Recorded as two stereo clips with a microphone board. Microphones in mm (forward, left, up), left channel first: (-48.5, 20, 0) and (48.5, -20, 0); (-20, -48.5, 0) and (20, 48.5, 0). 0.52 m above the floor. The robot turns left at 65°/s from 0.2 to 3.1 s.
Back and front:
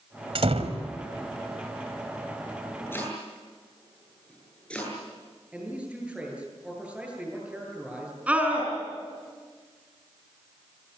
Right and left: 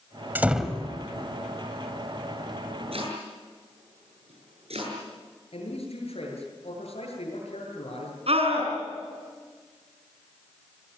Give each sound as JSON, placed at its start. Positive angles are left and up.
{"t": 0.3, "sound": "a door slam", "azimuth_deg": -5, "distance_m": 1.8}
{"t": 2.9, "sound": "chopping", "azimuth_deg": 90, "distance_m": 9.5}
{"t": 5.5, "sound": "a man speaking", "azimuth_deg": -100, "distance_m": 9.5}
{"t": 8.3, "sound": "a scream", "azimuth_deg": 55, "distance_m": 5.5}